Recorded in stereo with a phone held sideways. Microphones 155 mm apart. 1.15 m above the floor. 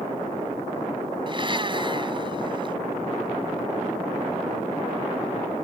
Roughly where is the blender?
Right.